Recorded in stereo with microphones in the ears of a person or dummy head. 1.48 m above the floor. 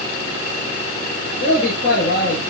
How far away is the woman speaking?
About 8 m.